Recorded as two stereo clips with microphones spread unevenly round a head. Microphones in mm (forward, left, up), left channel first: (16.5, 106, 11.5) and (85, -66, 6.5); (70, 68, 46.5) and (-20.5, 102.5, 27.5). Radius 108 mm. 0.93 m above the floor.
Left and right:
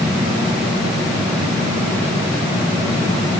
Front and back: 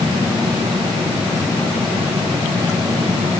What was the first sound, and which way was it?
Only background noise.